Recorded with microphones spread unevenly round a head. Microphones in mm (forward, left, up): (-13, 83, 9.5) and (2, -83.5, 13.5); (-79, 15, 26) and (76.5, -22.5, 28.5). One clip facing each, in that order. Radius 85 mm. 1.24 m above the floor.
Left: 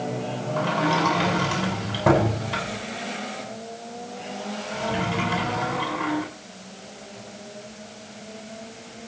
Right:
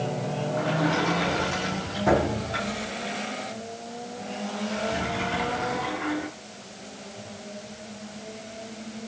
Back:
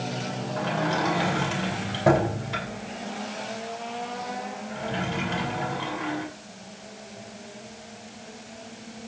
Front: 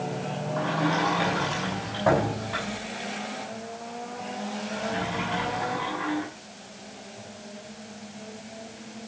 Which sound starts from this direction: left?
A sliding door, at 0.6 s.